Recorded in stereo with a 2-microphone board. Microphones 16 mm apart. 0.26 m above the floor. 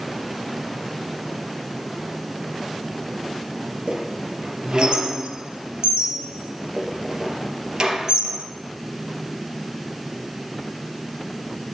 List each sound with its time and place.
3.9 s a squeak: 50° right (ahead or behind), 2 m